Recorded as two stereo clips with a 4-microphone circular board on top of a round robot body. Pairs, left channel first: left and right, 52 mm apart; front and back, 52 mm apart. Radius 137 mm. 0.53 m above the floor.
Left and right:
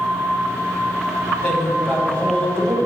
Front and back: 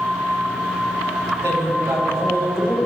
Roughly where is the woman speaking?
Behind left.